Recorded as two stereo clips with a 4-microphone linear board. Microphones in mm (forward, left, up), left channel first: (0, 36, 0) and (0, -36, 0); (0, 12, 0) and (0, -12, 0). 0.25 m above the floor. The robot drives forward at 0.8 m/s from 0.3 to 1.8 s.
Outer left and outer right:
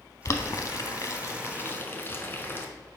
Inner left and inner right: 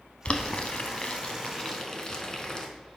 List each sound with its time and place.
0.2 s boiling: 45° left (ahead or behind), 0.8 m; by 2.7 s 30° left (ahead or behind), 1.1 m